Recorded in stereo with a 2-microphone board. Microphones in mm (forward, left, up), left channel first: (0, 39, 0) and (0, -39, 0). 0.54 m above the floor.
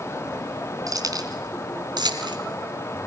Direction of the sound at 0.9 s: 50° right (ahead or behind).